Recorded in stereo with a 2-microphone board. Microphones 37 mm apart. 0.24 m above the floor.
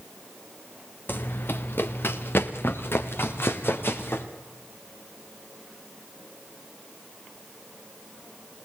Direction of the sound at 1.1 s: 65° left (ahead or behind).